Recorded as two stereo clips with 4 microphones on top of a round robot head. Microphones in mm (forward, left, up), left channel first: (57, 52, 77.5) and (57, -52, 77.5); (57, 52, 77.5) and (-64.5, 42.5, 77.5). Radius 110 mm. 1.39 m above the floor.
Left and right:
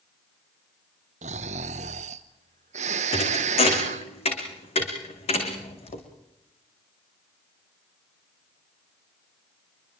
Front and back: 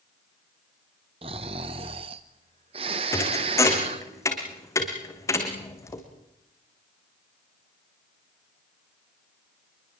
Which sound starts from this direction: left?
A thud, at 3.1 s.